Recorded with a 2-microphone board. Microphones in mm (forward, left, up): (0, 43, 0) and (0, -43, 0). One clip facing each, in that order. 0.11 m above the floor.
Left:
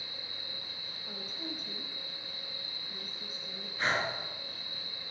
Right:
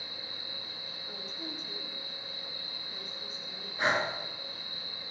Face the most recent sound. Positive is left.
turn(degrees=-20)  # may be behind; listen again after turning